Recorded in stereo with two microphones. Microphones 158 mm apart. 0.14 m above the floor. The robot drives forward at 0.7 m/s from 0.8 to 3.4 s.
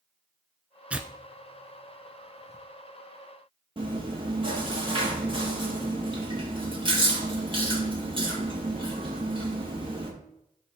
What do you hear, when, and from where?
0.9 s tearing paper: 10° right (ahead or behind), 0.9 m; by 2.6 s 5° right (ahead or behind), 1.9 m
3.8 s chewing: 35° right (ahead or behind), 3 m